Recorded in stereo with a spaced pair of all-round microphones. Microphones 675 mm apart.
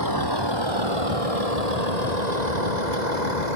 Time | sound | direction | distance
0.0 | a vehicle | 30° right (ahead or behind) | ?